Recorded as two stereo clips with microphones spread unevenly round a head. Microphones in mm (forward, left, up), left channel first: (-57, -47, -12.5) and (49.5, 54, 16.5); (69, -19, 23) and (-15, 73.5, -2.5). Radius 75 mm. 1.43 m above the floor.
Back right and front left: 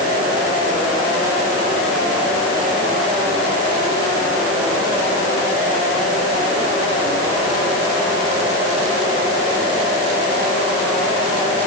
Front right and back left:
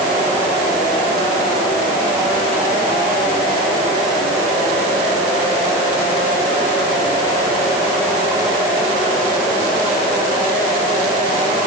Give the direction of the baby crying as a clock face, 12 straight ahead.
I don't hear a baby crying.